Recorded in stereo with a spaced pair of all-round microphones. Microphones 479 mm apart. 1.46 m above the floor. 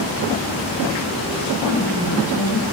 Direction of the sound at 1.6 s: 45° left (ahead or behind).